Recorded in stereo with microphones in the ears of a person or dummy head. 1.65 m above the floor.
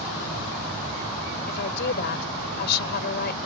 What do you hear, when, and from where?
1.5 s a woman speaking: 60° left (ahead or behind)